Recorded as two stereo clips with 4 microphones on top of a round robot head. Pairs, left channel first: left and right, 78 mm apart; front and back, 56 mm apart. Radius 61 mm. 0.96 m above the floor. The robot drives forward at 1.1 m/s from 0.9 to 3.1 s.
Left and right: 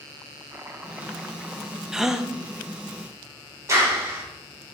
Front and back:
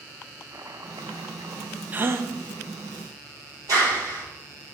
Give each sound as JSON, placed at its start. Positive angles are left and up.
{"t": 0.5, "sound": "chopping", "azimuth_deg": -150, "distance_m": 0.6}
{"t": 1.9, "sound": "a gasp", "azimuth_deg": -165, "distance_m": 0.6}
{"t": 3.7, "sound": "a clap", "azimuth_deg": -145, "distance_m": 3.0}